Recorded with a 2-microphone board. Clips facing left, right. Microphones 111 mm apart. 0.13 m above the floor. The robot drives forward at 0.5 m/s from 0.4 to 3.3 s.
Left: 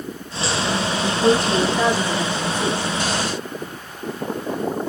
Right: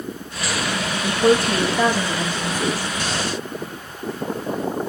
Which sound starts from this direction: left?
A woman speaking, at 0.9 s.